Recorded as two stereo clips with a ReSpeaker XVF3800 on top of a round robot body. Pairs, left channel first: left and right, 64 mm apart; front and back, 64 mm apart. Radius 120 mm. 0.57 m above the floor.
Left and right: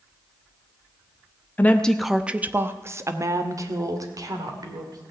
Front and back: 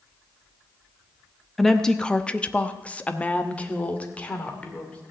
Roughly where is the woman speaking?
Left.